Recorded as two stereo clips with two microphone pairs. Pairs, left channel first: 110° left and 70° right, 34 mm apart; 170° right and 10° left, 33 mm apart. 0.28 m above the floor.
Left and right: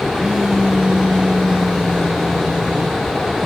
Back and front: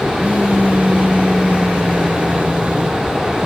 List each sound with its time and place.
0.2 s a phone buzzing: straight ahead, 1.1 m